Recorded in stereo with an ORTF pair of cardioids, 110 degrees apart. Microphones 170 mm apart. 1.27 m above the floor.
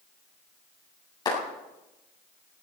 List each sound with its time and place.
1.2 s a clap: 25° left, 8.5 m